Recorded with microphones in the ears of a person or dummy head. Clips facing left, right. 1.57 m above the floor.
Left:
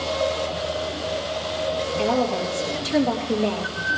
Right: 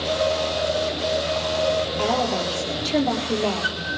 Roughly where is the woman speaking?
Left.